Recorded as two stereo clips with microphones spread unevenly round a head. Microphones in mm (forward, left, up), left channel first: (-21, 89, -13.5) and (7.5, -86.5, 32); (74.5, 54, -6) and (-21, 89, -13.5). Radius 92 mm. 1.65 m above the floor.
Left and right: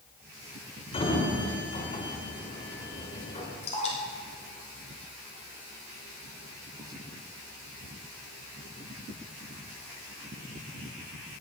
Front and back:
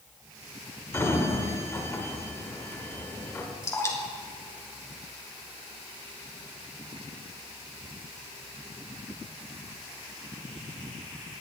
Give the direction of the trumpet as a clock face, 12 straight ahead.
I don't hear a trumpet.